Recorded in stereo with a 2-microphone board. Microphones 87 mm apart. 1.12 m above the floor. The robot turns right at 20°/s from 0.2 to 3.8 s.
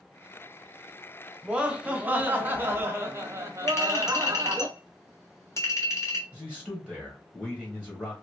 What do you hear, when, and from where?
1.4 s laughter: 165° right, 0.8 m; by 4.7 s 115° right, 0.8 m
3.7 s a clink: 35° left (ahead or behind), 1.1 m
6.3 s a man speaking: 15° left (ahead or behind), 1.1 m